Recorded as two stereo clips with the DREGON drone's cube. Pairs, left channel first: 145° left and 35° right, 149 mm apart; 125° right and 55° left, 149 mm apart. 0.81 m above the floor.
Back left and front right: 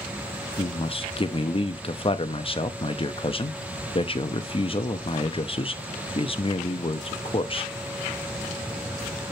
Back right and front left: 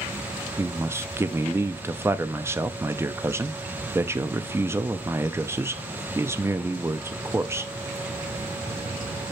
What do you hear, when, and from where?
0.6 s a man speaking: 120° left, 0.6 m